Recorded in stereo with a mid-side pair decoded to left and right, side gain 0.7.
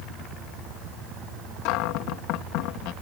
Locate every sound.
1.6 s a cupboard door: 65° left